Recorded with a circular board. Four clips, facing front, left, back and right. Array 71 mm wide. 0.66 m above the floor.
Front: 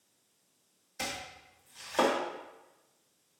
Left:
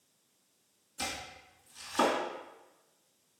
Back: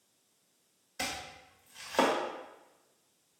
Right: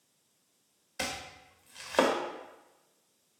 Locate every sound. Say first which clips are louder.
1.0 s chopping: right 2 dB, even; 100° right, 1.3 m